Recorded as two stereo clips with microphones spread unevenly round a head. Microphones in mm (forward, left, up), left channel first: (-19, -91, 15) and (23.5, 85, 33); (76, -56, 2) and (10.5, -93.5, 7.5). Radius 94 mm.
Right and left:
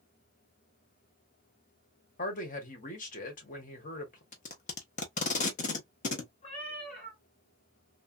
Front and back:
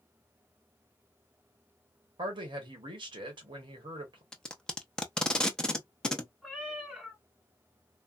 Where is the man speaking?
155° right, 1.4 m.